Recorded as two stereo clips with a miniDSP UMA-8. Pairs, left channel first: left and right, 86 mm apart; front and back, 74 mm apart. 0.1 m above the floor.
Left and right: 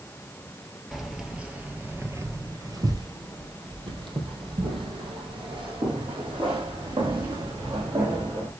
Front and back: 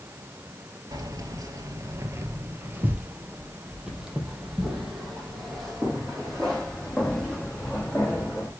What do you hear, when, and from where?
0.9 s keys jangling: straight behind, 1.4 m; by 8.5 s 80° right, 4.5 m